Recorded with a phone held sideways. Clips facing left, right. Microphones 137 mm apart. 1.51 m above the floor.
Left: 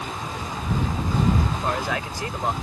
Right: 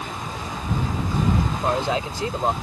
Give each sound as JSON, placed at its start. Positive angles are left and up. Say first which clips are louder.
{"t": 1.5, "sound": "a man speaking", "louder": "right 3 dB", "side_deg": -25}